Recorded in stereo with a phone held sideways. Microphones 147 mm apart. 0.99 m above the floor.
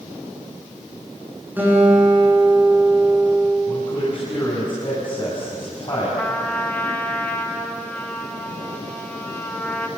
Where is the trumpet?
10° left (ahead or behind), 2.5 m.